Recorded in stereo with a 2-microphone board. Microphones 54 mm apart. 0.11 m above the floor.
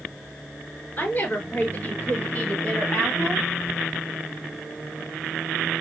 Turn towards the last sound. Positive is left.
turn(degrees=20)  # may be behind; listen again after turning